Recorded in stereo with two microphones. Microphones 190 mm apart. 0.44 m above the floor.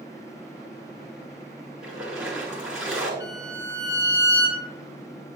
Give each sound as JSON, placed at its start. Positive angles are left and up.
{"t": 1.8, "sound": "a splash", "side_deg": -5, "distance_m": 2.5}
{"t": 3.2, "sound": "a violin", "side_deg": 70, "distance_m": 3.5}